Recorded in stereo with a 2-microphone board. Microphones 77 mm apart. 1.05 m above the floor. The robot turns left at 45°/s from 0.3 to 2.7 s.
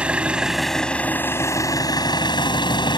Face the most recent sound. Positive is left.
turn(degrees=85)